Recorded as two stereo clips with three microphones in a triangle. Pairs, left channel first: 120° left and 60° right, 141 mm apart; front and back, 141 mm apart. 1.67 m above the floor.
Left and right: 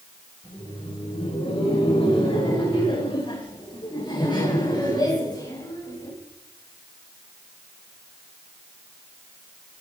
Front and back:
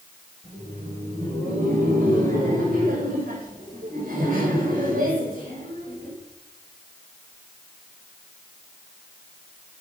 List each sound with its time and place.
0.4 s laughter: 165° left, 8.5 m; by 6.1 s 175° right, 6.5 m